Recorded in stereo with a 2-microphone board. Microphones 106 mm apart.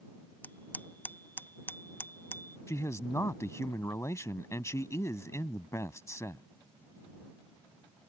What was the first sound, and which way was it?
A bicycle bell, 15° left (ahead or behind).